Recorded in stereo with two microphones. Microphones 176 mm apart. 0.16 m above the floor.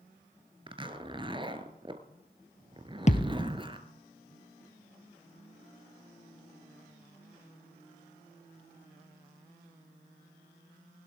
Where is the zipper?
30° right (ahead or behind), 1.5 m.